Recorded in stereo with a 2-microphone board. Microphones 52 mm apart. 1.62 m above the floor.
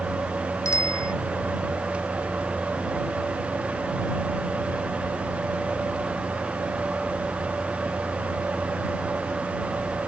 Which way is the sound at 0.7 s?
70° left (ahead or behind).